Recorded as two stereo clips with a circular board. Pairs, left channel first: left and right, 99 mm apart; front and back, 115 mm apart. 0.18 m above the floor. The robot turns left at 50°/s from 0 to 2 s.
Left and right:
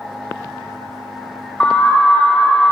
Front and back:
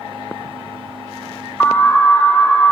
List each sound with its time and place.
1.6 s an alarm: 40° left, 0.8 m; by 2.7 s 20° left, 0.8 m